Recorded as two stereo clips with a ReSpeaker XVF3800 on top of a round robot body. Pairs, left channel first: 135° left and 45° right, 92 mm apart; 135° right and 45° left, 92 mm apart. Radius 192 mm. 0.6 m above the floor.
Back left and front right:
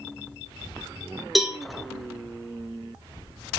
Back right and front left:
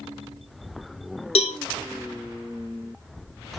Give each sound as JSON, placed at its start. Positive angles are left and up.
{"t": 1.4, "sound": "a cowbell", "azimuth_deg": -135, "distance_m": 1.0}